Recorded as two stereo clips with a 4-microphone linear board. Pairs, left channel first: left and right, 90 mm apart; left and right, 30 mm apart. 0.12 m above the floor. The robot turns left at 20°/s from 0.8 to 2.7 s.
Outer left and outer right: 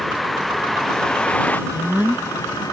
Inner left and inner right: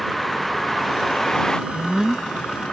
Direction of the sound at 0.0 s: Straight behind.